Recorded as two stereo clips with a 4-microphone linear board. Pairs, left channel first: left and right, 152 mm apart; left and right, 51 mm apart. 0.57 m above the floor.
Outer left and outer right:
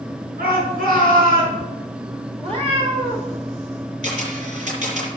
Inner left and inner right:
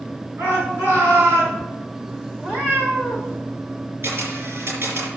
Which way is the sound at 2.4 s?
50° right (ahead or behind).